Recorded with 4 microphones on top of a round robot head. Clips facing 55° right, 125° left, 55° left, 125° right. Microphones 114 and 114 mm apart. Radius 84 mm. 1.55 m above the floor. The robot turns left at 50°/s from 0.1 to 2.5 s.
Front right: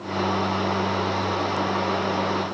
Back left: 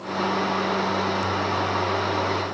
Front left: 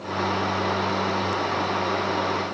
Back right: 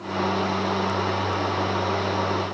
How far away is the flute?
I don't hear a flute.